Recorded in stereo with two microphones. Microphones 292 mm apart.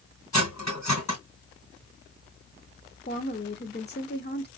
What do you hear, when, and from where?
0.3 s cutlery clinking: 70° left (ahead or behind), 2.5 m
3.1 s a woman speaking: 35° left (ahead or behind), 0.9 m